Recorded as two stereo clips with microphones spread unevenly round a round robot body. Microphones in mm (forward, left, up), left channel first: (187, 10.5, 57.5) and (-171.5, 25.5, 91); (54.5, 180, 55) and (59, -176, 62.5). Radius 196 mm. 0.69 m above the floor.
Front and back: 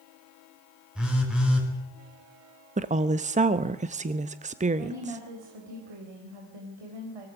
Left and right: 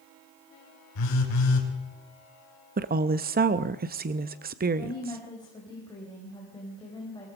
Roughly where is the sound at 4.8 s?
Behind.